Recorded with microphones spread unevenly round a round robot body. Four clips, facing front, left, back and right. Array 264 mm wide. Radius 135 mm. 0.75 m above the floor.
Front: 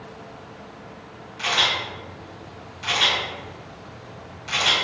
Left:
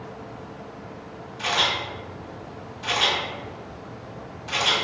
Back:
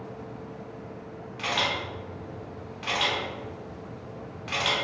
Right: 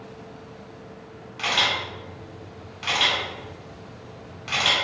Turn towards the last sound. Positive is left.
turn(degrees=-120)